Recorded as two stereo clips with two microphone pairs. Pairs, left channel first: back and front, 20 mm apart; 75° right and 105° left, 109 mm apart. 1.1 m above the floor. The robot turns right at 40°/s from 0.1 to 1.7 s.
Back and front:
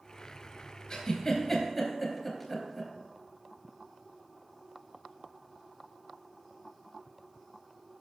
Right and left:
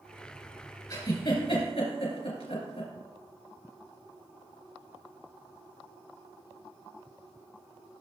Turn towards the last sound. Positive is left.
turn(degrees=-105)